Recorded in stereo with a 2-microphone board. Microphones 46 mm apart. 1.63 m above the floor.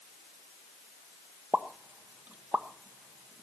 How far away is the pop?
About 1.0 m.